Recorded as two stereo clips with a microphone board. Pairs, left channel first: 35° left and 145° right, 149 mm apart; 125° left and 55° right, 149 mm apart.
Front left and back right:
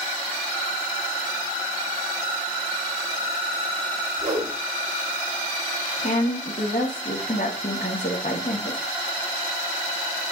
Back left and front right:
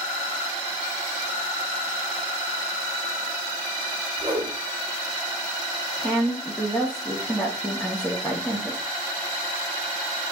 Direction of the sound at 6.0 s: 45° left.